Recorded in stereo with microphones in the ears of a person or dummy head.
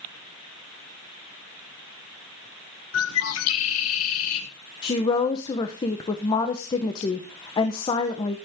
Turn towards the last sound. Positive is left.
turn(degrees=30)  # may be behind; listen again after turning